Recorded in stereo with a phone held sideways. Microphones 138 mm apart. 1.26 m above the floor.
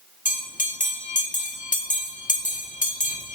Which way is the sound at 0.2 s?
70° left (ahead or behind).